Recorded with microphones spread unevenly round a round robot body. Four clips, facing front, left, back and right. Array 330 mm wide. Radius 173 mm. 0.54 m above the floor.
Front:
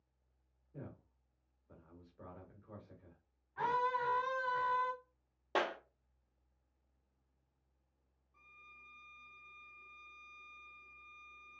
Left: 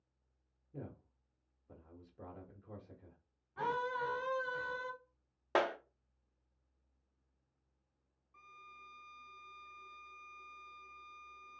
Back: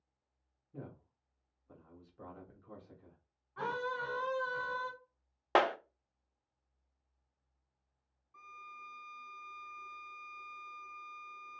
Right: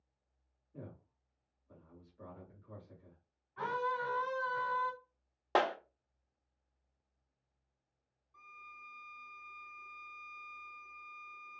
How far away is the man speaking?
About 1.6 m.